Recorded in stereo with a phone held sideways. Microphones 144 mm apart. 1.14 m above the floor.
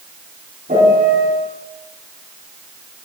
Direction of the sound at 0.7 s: 65° right (ahead or behind).